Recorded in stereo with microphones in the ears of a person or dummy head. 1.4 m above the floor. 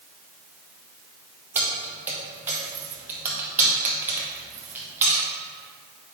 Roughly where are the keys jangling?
Centre.